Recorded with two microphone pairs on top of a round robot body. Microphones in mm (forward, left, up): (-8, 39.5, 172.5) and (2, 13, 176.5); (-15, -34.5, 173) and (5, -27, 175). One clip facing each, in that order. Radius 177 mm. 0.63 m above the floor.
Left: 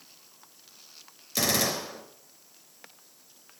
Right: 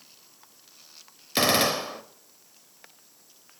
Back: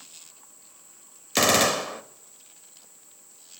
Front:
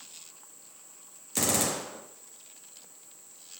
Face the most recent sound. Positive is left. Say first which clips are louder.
# right 5 dB, back 8 dB
turn(degrees=-115)